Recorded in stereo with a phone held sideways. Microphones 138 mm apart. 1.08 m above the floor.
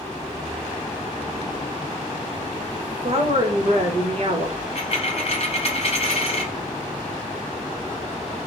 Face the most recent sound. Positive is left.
turn(degrees=45)  # may be behind; listen again after turning